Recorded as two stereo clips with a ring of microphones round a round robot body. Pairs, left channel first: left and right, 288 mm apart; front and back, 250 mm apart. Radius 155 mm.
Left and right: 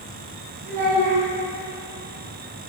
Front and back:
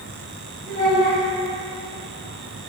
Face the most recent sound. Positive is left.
turn(degrees=-70)